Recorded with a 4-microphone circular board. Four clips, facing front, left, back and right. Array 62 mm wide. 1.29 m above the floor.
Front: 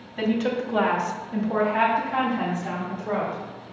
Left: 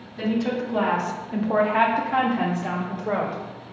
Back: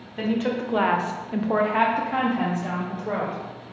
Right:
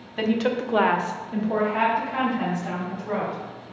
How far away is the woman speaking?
About 0.8 m.